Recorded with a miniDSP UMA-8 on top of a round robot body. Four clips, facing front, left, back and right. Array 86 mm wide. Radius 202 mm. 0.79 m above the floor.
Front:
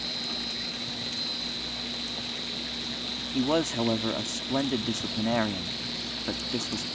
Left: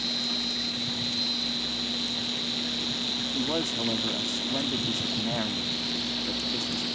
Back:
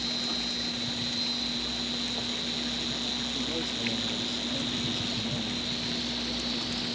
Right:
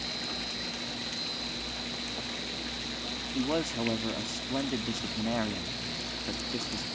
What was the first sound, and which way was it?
An insect, 115° left.